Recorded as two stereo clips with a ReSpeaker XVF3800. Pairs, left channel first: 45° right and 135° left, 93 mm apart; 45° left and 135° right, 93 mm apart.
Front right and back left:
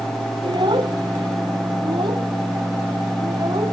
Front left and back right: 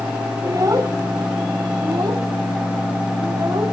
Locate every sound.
0.4 s a child speaking: 170° left; by 3.7 s 175° left